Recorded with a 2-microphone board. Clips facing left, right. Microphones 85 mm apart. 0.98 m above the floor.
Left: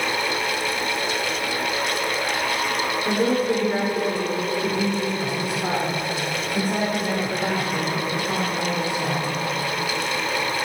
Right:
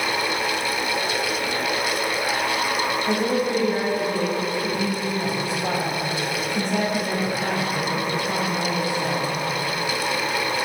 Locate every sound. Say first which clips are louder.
3.0 s a woman speaking: left 3 dB; 75° left (ahead or behind), 4 m; by 9.3 s 25° left (ahead or behind), 5 m